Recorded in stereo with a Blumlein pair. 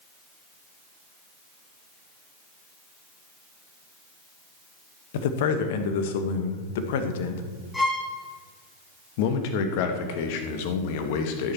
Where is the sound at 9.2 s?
45° left, 1.6 m.